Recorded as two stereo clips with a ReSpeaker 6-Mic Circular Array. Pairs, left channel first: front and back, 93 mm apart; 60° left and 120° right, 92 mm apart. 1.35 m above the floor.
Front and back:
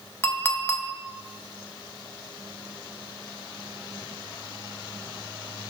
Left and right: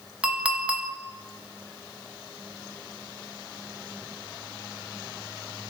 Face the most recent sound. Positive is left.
turn(degrees=-45)